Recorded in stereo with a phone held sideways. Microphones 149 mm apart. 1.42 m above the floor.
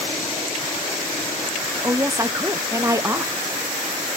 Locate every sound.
1.8 s a woman speaking: 20° right (ahead or behind), 0.7 m